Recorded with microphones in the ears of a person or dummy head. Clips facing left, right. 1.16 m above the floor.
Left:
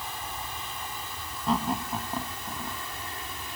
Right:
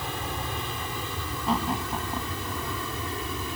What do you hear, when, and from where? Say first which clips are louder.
0.0 s an aircraft: right 5 dB; 55° right (ahead or behind); by 3.6 s 65° right (ahead or behind)
1.5 s laughter: even; centre (ahead or behind)